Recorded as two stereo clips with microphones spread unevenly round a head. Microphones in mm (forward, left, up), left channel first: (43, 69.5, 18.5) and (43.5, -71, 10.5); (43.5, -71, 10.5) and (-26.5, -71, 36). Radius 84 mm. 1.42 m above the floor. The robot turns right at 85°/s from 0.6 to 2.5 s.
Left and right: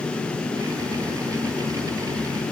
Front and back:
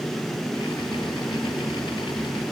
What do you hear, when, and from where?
Only background noise.